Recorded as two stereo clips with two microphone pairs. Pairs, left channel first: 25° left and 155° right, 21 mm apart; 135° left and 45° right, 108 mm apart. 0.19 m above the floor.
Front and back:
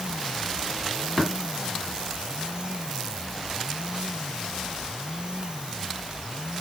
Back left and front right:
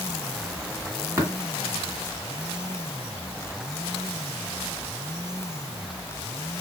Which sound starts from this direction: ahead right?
Tapping, at 1.2 s.